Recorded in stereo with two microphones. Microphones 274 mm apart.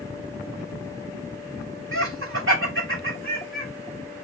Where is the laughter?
45° right (ahead or behind), 3 m.